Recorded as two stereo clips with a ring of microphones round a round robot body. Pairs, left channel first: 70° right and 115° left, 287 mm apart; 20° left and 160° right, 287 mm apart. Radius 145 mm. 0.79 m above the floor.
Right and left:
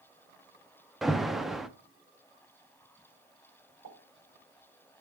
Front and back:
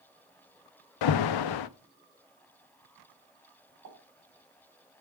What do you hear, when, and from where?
1.0 s an alarm: 25° left, 0.5 m
3.8 s a pop: 150° left, 5.5 m